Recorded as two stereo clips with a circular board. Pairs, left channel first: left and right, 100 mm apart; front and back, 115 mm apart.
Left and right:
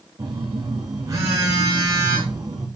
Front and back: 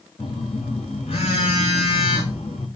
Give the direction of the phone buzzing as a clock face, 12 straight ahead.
1 o'clock.